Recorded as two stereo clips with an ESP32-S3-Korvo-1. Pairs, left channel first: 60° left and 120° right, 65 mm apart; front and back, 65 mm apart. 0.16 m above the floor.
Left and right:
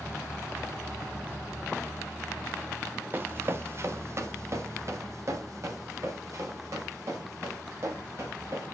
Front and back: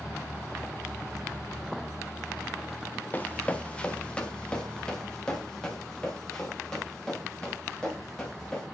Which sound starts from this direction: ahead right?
Running footsteps, at 3.1 s.